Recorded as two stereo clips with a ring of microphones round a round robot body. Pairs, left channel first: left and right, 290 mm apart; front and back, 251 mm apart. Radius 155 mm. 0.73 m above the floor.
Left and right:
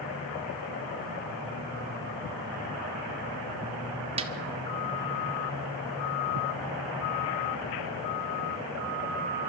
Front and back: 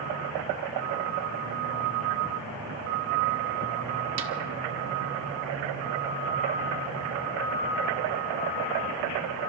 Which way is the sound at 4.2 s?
160° right.